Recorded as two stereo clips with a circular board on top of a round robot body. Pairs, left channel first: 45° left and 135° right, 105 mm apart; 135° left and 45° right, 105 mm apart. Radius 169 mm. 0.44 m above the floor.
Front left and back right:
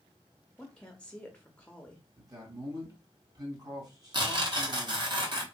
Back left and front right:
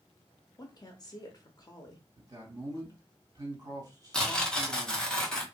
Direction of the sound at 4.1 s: 145° right.